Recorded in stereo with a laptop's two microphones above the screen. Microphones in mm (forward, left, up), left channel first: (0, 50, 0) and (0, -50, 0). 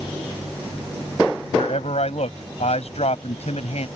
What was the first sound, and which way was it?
A man speaking, 80° left.